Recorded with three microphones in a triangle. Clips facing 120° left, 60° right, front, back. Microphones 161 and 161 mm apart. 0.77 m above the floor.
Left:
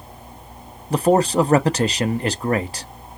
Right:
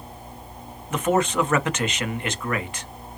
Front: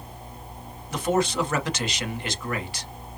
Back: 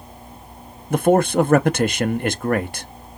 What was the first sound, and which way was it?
A man speaking, 165° left.